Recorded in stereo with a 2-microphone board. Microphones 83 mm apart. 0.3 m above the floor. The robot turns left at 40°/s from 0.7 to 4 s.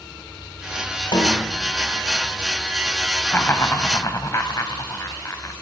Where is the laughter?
155° left, 2 m; by 5.5 s 125° left, 2 m.